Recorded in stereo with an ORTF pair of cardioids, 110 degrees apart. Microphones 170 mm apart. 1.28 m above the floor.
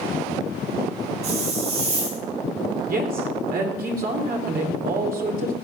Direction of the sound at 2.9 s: 60° right.